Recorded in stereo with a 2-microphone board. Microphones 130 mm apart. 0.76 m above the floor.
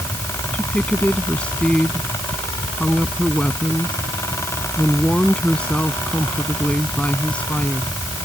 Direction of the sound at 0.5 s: 10° left (ahead or behind).